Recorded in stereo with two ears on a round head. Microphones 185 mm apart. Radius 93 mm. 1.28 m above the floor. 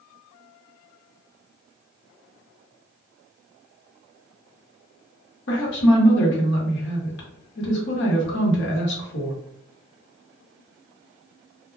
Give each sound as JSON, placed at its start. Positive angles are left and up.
{"t": 5.5, "sound": "a woman speaking", "side_deg": 60, "distance_m": 1.0}